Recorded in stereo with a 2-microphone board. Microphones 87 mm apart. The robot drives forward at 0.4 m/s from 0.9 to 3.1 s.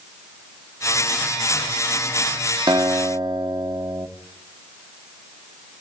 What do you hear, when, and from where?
2.7 s a guitar: 55° right (ahead or behind), 0.9 m